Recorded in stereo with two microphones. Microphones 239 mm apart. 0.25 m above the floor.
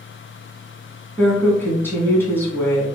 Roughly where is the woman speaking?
Centre.